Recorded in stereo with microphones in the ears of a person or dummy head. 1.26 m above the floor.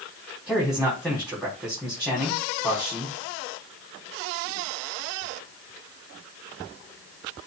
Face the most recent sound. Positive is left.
turn(degrees=-5)  # may be behind; listen again after turning